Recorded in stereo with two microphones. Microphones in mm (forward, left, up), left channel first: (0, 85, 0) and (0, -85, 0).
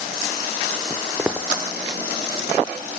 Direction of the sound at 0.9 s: 5° right (ahead or behind).